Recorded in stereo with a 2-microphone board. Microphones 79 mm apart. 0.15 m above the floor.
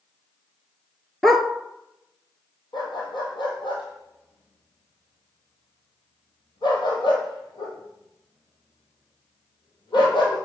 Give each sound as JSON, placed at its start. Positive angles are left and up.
{"t": 1.2, "sound": "a dog barking", "side_deg": 5, "distance_m": 0.6}
{"t": 2.7, "sound": "a dog barking", "side_deg": 75, "distance_m": 2.0}